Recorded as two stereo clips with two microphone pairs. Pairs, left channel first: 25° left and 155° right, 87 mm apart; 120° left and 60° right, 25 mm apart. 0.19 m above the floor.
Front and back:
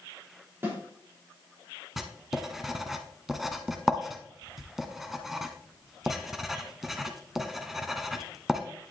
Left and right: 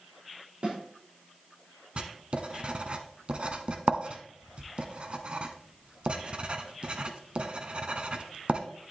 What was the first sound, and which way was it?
A snare drum, 95° right.